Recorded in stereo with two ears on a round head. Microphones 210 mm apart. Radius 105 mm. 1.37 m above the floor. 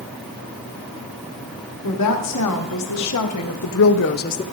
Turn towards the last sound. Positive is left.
turn(degrees=25)  # may be behind; listen again after turning